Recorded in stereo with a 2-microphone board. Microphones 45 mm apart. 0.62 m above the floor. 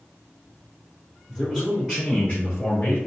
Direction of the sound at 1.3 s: 5° right (ahead or behind).